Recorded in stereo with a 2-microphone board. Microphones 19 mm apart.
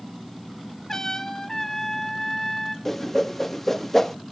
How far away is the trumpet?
About 1.5 m.